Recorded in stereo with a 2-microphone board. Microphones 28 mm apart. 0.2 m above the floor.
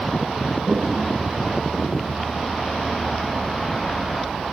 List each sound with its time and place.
0.7 s a toilet flushing: 40° right (ahead or behind), 3 m